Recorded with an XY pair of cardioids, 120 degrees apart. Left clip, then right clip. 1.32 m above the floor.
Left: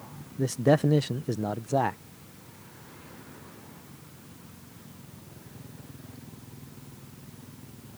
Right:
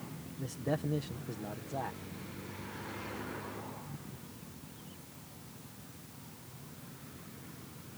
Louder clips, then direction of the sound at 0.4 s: Left 13 dB; 65° left.